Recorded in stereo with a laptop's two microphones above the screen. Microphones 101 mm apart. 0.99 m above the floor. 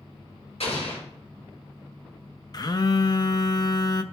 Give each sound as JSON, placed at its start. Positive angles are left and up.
{"t": 0.6, "sound": "an explosion", "side_deg": 75, "distance_m": 4.5}
{"t": 2.5, "sound": "a phone buzzing", "side_deg": 40, "distance_m": 0.6}